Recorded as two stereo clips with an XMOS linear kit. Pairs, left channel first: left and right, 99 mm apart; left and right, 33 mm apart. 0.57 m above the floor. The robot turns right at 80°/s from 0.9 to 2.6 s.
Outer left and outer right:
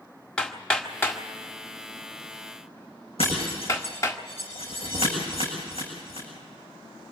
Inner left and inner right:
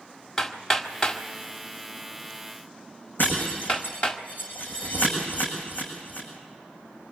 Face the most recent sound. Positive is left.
turn(degrees=85)